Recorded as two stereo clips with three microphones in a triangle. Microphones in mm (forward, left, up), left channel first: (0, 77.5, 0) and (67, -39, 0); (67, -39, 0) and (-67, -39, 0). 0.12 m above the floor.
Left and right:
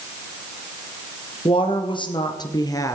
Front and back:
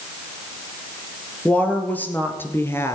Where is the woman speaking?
80° left, 2.5 m; by 3.0 s 60° left, 1.8 m.